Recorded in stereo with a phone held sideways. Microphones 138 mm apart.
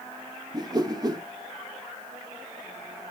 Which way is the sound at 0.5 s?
30° right (ahead or behind).